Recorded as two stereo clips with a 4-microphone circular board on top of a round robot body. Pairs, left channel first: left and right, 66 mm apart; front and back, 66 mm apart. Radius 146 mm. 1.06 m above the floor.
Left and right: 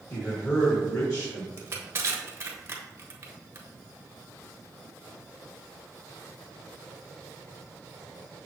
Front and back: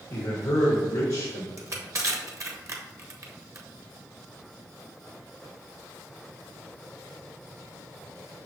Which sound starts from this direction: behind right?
Crushing, at 1.6 s.